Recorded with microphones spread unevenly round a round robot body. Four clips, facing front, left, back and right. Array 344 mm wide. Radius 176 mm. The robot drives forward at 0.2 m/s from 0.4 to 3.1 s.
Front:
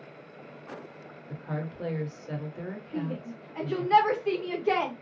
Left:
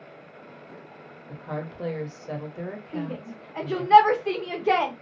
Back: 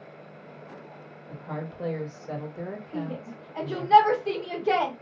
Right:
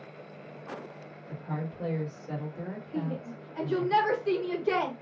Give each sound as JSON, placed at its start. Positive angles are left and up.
{"t": 1.3, "sound": "a woman speaking", "azimuth_deg": 90, "distance_m": 1.0}
{"t": 2.9, "sound": "a shout", "azimuth_deg": 120, "distance_m": 1.3}